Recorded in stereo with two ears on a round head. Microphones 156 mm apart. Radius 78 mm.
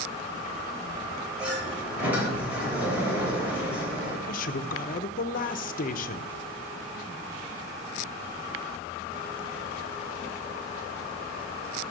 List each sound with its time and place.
1.4 s a sliding door: 10° right (ahead or behind), 3.5 m
4.3 s a man speaking: 45° left (ahead or behind), 0.7 m